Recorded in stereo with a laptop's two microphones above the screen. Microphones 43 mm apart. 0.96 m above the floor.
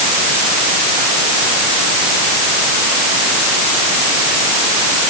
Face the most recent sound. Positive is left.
No sound to turn to.